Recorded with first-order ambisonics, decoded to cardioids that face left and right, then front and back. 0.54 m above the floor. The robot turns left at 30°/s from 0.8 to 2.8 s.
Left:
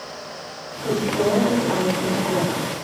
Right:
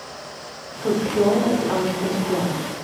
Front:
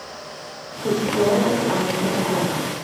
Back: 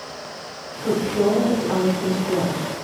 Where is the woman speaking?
70° right, 0.8 m; by 2.7 s 125° right, 0.8 m.